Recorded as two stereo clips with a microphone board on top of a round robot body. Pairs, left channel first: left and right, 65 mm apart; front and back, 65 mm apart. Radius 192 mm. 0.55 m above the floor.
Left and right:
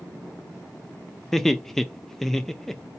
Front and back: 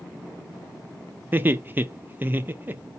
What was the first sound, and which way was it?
Laughter, 170° left.